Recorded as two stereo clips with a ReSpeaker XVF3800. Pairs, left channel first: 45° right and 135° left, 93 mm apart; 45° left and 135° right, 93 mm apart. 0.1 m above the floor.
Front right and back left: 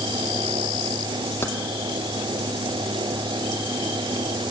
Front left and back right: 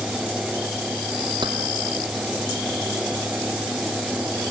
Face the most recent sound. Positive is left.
turn(degrees=-105)